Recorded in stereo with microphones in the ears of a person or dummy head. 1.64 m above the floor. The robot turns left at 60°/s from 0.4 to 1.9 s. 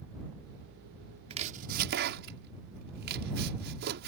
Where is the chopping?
35° right (ahead or behind); by 4.1 s 60° right (ahead or behind).